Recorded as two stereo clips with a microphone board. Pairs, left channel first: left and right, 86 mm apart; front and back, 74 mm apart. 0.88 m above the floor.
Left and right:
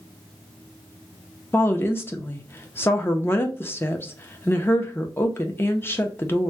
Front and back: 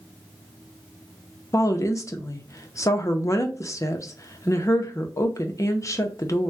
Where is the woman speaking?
30° left, 0.6 m.